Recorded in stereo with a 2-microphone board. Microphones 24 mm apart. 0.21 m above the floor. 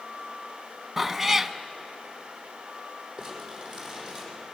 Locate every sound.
1.0 s a cat meowing: 10° right (ahead or behind), 0.8 m
3.2 s crumpling: 15° right (ahead or behind), 6.5 m